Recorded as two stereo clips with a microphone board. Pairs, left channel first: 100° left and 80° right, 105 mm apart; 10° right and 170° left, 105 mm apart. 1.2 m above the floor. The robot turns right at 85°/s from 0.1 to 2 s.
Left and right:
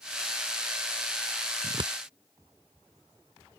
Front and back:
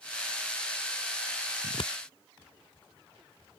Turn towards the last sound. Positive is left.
turn(degrees=-20)